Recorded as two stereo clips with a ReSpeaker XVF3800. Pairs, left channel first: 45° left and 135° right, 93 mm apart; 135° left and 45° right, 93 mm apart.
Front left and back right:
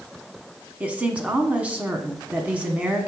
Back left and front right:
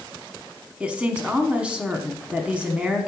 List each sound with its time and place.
0.8 s a woman speaking: 95° right, 1.2 m